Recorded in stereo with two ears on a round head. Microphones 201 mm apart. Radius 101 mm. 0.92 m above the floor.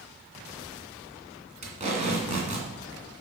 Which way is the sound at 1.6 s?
35° right (ahead or behind).